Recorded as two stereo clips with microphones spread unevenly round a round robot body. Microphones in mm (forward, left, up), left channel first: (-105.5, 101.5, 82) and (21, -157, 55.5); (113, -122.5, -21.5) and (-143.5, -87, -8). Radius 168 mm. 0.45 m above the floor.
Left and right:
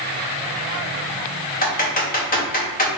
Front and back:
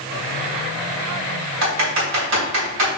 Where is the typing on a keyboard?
175° left, 3 m.